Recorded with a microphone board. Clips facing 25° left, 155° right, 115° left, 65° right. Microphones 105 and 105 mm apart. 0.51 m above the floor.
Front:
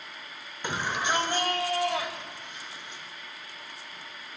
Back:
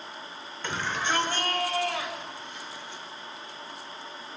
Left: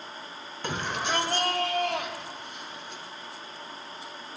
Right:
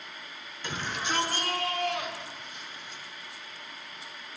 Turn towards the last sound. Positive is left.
turn(degrees=90)